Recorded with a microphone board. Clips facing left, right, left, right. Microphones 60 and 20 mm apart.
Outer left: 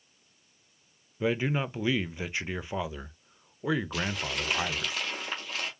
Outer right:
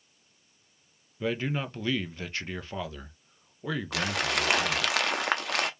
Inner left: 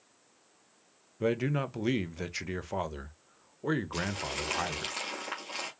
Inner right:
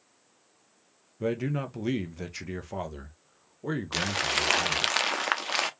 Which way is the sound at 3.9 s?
70° right (ahead or behind).